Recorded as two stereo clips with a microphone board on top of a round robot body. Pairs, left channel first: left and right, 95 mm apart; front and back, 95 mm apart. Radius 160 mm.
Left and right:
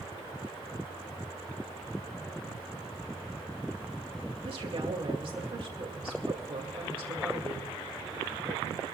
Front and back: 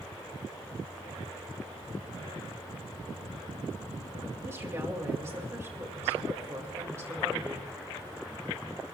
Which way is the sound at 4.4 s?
115° right.